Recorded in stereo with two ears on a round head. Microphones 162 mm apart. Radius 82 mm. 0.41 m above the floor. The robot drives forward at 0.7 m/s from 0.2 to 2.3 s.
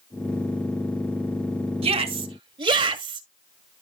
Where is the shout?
35° right (ahead or behind), 1.5 m; by 3.2 s 30° right (ahead or behind), 1.7 m.